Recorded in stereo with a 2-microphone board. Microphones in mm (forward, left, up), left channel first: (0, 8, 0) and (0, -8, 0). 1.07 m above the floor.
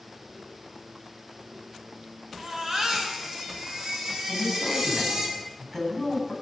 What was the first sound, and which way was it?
A baby crying, 35° right (ahead or behind).